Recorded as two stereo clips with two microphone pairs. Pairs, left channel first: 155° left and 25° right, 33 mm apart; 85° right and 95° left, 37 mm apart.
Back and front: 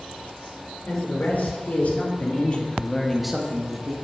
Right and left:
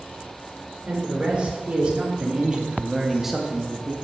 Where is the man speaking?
150° left, 3 m; by 3.9 s 15° right, 1.2 m.